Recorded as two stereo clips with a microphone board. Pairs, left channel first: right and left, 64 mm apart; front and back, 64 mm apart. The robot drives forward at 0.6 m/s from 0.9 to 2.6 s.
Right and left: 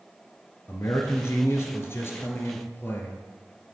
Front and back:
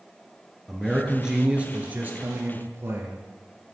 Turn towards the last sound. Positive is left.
turn(degrees=-140)